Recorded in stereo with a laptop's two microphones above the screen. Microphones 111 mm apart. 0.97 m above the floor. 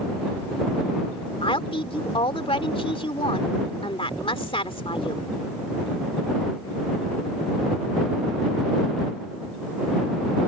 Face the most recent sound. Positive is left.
turn(degrees=55)  # may be behind; listen again after turning